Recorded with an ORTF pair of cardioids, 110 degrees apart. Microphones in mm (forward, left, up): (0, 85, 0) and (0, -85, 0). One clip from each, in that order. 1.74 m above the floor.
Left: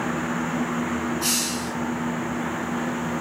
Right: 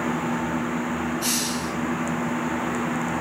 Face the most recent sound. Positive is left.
turn(degrees=15)